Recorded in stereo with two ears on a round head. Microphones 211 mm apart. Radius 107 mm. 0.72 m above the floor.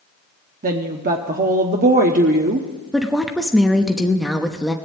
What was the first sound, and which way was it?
A woman speaking, 35° right (ahead or behind).